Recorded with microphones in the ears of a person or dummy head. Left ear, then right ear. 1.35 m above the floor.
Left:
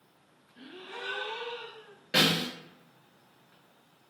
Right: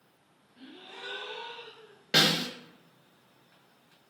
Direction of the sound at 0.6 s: 20° left (ahead or behind).